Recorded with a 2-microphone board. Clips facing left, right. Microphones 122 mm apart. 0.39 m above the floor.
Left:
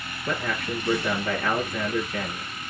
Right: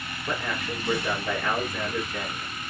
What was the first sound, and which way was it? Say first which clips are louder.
A man speaking: left 2 dB; 60° left (ahead or behind).